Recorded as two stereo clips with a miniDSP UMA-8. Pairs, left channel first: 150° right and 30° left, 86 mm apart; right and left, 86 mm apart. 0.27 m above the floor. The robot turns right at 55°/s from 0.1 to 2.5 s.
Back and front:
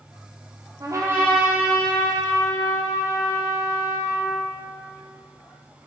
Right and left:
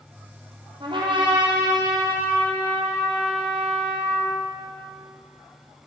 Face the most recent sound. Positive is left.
turn(degrees=170)